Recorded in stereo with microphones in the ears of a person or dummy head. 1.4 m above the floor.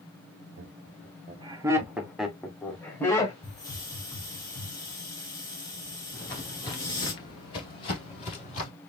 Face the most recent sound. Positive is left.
turn(degrees=35)  # may be behind; listen again after turning